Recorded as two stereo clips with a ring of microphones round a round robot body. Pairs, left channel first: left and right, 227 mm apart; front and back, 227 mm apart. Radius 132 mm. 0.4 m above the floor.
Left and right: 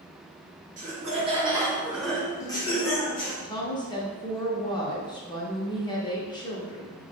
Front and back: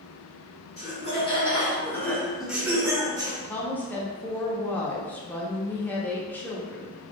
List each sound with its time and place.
0.8 s laughter: 50° right, 1.2 m; by 3.3 s 115° left, 1.1 m
3.4 s a woman speaking: 65° left, 0.7 m